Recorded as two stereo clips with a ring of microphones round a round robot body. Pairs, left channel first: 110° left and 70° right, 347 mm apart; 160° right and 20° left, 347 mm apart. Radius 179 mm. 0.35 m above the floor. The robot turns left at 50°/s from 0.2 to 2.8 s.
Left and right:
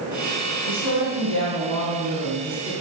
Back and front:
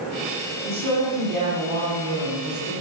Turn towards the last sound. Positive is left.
turn(degrees=-15)